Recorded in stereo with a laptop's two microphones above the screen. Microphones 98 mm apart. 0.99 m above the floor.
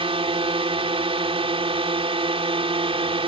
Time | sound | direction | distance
0.0 | a drone | 75° right (ahead or behind) | ?